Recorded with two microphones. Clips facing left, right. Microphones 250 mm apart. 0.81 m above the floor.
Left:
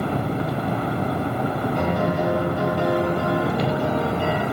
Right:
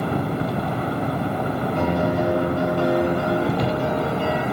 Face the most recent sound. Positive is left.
turn(degrees=15)  # may be behind; listen again after turning